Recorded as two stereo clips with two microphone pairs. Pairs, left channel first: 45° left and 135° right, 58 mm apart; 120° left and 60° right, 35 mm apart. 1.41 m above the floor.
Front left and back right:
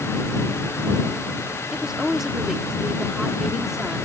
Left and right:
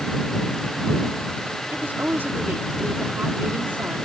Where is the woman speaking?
50° right.